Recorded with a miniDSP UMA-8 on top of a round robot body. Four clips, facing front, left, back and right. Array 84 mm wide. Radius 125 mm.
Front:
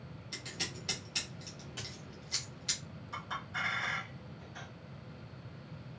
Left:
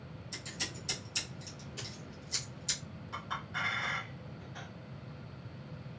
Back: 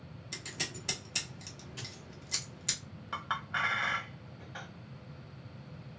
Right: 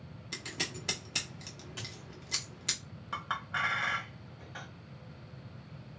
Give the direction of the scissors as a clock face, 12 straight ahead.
3 o'clock.